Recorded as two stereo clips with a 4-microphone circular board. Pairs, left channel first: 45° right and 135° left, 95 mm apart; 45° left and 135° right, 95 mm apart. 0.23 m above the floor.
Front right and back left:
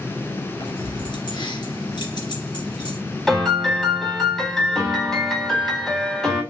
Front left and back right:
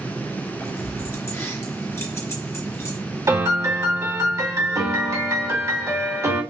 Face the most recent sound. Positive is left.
turn(degrees=-130)